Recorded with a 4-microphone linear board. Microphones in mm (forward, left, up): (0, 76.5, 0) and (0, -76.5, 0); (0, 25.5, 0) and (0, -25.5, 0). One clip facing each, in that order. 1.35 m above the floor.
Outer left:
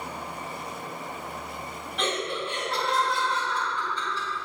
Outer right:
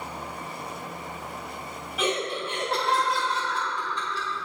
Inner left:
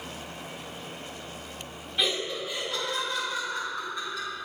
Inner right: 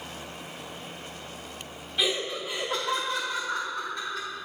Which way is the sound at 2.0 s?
5° right (ahead or behind).